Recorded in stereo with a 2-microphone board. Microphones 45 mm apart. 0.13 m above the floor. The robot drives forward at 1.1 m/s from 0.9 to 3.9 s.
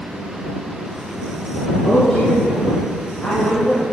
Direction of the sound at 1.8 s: 10° left (ahead or behind).